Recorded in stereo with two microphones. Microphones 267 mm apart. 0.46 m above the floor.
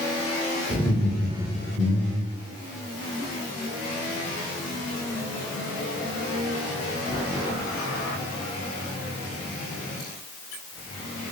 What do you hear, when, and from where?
0.7 s laughter: 20° left (ahead or behind), 1.9 m